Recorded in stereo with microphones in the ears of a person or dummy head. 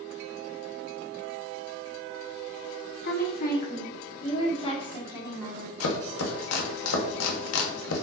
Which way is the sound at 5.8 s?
80° left.